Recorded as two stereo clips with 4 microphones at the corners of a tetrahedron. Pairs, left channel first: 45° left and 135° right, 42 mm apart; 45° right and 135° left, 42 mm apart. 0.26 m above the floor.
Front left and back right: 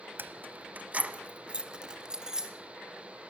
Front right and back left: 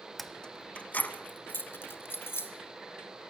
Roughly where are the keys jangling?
Behind right.